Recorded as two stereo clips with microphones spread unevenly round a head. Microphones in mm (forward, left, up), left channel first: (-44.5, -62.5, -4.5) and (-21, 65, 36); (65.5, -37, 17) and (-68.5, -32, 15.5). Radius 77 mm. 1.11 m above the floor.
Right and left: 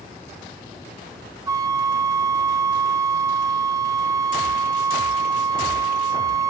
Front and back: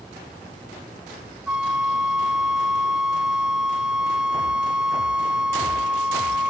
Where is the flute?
95° left, 0.8 m.